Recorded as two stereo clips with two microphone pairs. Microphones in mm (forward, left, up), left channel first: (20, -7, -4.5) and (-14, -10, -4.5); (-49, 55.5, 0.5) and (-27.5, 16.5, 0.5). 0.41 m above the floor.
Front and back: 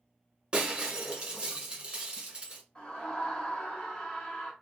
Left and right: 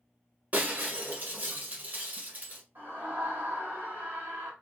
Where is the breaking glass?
115° right, 1.1 m.